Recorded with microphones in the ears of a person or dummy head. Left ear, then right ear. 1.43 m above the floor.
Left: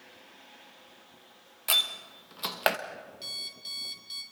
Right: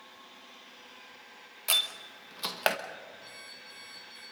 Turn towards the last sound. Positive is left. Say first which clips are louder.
# left 9 dB
turn(degrees=80)